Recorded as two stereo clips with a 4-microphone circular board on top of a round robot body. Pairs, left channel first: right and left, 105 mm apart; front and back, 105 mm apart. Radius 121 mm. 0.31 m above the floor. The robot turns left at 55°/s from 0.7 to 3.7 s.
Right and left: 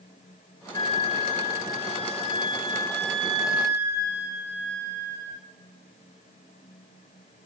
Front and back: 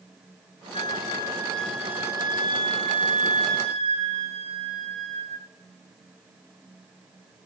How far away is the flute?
About 1.3 m.